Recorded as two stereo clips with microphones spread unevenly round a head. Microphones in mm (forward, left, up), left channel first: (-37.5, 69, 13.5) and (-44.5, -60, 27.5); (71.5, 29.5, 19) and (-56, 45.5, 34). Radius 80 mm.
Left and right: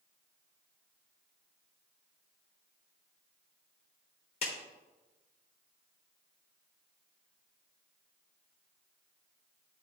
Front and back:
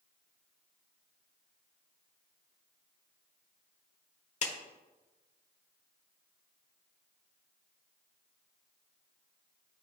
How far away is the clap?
About 1.1 m.